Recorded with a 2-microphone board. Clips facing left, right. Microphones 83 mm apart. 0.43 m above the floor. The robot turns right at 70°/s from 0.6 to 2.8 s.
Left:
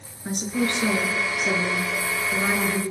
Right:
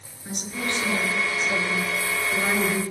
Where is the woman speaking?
40° left, 6.5 m; by 2.8 s 165° right, 6.5 m.